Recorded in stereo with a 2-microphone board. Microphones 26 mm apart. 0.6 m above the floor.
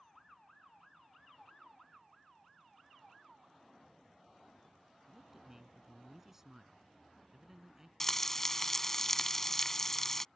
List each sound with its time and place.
5.1 s a man speaking: 15° right (ahead or behind)
8.0 s frying: 15° left (ahead or behind)